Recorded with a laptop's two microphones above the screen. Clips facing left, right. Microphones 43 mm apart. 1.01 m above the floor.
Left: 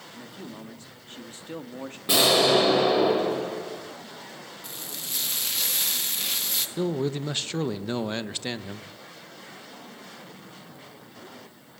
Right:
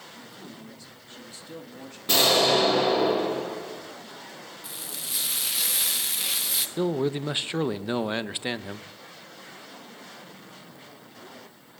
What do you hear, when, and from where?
0.1 s a man speaking: 45° left (ahead or behind), 1.7 m
2.1 s an explosion: 10° left (ahead or behind), 3.5 m
4.6 s frying: 5° right (ahead or behind), 0.8 m
6.8 s a man speaking: 20° right (ahead or behind), 0.6 m